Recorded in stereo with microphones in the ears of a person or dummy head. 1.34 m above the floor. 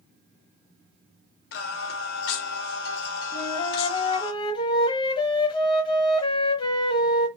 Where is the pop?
I don't hear a pop.